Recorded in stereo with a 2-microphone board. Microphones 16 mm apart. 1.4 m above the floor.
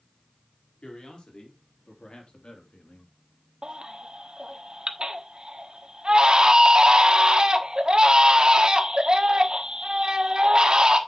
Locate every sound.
0.8 s a man speaking: 75° left (ahead or behind), 4 m; by 3.1 s 85° left, 2.5 m
3.6 s a baby crying: 50° right (ahead or behind), 1.3 m